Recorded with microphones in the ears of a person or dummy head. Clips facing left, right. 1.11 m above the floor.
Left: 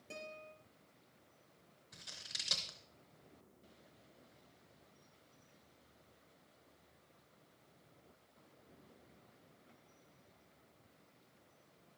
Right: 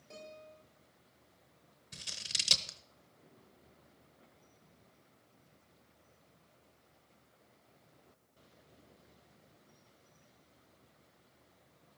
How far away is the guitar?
About 4 m.